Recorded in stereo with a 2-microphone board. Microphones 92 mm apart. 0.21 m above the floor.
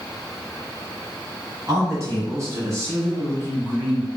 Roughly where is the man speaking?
Right.